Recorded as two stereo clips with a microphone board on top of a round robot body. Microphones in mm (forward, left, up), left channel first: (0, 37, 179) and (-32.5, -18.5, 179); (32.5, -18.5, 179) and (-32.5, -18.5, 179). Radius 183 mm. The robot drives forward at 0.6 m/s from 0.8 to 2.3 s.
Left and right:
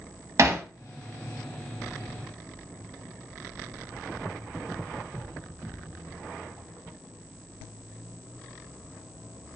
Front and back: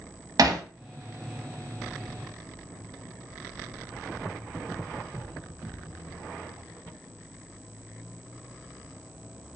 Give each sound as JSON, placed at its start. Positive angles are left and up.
{"t": 0.4, "sound": "hammering", "azimuth_deg": -160, "distance_m": 0.7}